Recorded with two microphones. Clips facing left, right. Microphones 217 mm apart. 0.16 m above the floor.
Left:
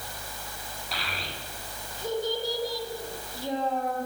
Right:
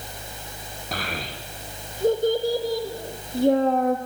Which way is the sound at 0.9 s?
50° right (ahead or behind).